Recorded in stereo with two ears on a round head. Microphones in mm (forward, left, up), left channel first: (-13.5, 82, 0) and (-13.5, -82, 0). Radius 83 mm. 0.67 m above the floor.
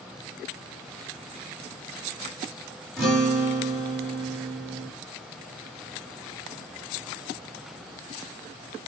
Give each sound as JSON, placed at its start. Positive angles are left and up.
{"t": 3.0, "sound": "a guitar", "side_deg": 0, "distance_m": 1.5}